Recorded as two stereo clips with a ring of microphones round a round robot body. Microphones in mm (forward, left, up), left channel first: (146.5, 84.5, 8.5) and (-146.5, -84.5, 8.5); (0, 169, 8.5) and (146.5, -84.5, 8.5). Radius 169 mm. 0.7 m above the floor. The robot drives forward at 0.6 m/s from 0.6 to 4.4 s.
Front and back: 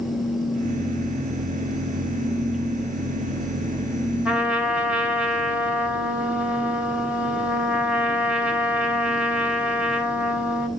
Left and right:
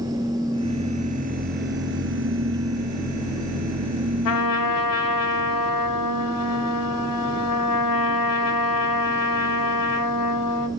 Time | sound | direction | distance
4.2 | a trumpet | 120° left | 3.5 m